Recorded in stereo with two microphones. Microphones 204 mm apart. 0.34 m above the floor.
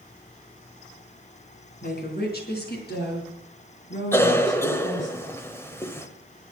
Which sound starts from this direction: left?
A woman speaking, at 1.8 s.